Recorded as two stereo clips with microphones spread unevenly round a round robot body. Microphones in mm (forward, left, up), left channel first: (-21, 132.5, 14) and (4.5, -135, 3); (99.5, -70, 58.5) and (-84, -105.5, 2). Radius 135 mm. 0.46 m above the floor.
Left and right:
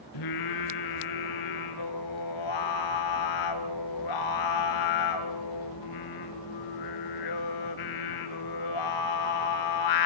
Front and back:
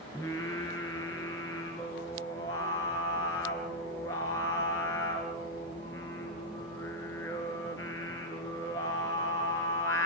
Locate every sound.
0.1 s singing: 90° left, 3 m